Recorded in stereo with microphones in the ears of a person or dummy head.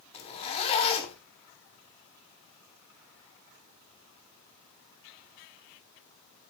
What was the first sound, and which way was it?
A zipper, 40° left (ahead or behind).